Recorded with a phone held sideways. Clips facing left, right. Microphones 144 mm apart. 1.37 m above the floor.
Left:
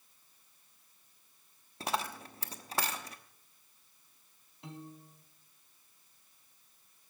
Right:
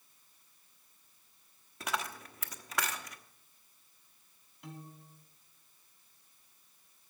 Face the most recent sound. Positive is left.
turn(degrees=25)  # may be behind; listen again after turning